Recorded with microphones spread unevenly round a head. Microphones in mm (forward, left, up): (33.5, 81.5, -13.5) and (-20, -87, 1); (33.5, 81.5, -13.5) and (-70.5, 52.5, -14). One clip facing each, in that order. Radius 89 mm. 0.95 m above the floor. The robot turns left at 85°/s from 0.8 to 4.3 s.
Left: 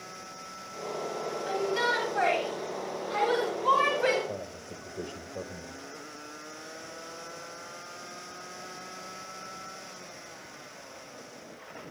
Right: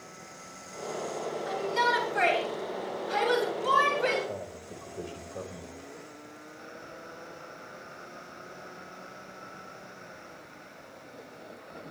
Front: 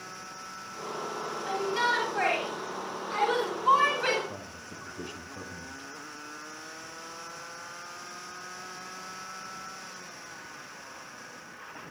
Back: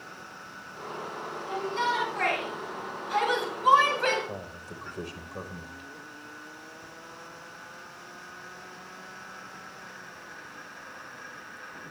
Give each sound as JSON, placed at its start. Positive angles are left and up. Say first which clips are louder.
{"t": 1.5, "sound": "a shout", "louder": "left 1 dB, even", "azimuth_deg": 20, "distance_m": 7.0}
{"t": 4.3, "sound": "a man speaking", "louder": "even, back 3 dB", "azimuth_deg": 155, "distance_m": 4.0}